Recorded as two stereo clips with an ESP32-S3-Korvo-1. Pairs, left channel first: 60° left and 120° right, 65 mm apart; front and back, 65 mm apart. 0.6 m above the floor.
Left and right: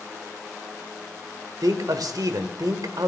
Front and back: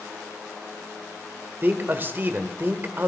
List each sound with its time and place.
1.6 s a man speaking: 125° right, 1.8 m